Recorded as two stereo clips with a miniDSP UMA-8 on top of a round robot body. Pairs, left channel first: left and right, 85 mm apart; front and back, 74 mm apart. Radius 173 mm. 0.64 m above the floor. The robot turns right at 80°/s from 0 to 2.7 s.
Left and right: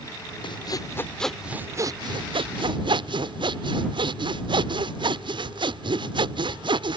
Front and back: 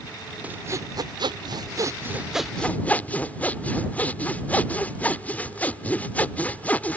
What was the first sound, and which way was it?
Sawing, 110° left.